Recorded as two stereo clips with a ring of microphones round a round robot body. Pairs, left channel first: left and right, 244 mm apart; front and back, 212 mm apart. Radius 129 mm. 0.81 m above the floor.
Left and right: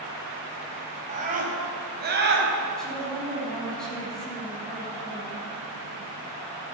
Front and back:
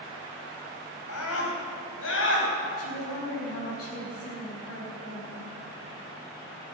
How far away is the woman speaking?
About 5 m.